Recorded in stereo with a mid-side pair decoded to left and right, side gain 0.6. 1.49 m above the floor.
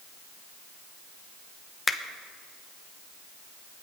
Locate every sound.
1.9 s a finger snap: 15° left, 1.0 m